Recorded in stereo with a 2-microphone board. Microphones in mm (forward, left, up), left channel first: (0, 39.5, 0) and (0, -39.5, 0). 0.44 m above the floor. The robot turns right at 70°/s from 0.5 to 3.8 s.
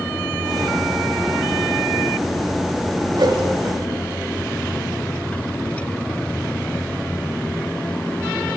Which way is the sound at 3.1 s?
60° right (ahead or behind).